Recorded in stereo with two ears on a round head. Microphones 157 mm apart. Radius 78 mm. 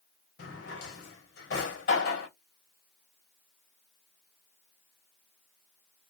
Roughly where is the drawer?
Left.